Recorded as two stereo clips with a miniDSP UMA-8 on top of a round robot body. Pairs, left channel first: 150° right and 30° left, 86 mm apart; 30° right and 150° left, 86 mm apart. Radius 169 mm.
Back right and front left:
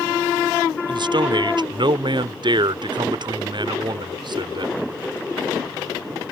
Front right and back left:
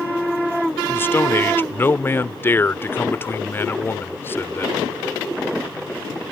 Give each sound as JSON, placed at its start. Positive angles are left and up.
{"t": 0.9, "sound": "a man speaking", "azimuth_deg": 30}